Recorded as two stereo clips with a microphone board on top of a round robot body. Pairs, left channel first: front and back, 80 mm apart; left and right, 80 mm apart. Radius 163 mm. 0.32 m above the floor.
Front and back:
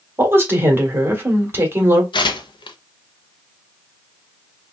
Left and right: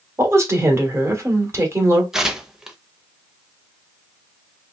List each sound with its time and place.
0.2 s a woman speaking: 130° right, 1.5 m
2.1 s tearing paper: 5° right, 0.6 m